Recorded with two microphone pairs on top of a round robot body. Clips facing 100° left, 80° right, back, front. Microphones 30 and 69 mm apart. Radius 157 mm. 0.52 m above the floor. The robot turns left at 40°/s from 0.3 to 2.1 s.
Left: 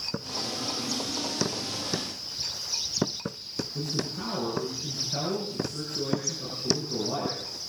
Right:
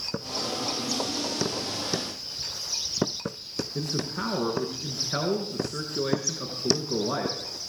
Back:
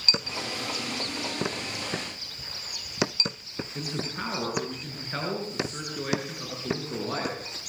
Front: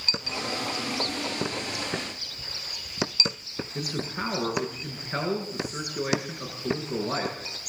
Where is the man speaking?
80° right, 8 m.